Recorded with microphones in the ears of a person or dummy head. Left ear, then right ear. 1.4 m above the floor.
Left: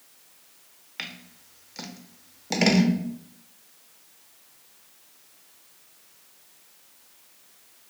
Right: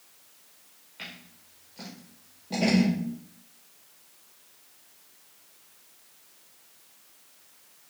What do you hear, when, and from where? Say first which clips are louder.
1.0 s scissors: left 5 dB; 60° left (ahead or behind), 0.8 m